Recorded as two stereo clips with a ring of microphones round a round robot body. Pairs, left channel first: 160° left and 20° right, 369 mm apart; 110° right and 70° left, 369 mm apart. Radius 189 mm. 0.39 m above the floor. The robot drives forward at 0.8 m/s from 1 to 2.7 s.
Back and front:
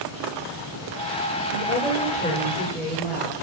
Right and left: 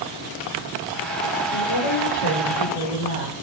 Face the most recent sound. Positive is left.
turn(degrees=-135)